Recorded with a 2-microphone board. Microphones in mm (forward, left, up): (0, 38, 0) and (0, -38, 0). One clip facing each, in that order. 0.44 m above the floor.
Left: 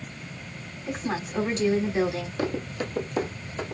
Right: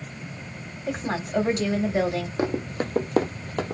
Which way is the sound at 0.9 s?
50° right (ahead or behind).